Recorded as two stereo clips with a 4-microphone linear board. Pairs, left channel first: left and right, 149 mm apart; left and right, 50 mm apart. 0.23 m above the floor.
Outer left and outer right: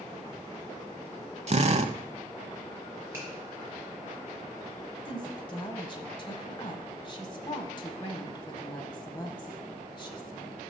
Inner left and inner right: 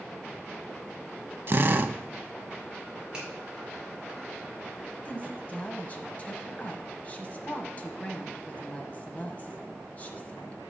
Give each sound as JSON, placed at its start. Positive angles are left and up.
{"t": 1.5, "sound": "a drill", "side_deg": -50, "distance_m": 0.6}
{"t": 3.1, "sound": "a finger snap", "side_deg": -15, "distance_m": 4.0}
{"t": 5.0, "sound": "a woman speaking", "side_deg": 30, "distance_m": 1.0}